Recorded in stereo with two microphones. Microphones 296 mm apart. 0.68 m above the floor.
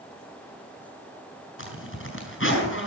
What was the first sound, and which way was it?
A zipper, 45° left (ahead or behind).